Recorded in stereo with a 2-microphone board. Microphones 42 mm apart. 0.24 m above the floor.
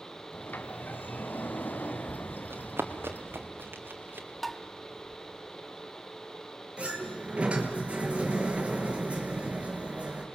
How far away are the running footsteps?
About 3.5 m.